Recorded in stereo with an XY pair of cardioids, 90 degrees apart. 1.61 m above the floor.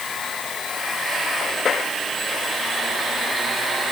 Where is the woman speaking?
No woman speaking in this recording.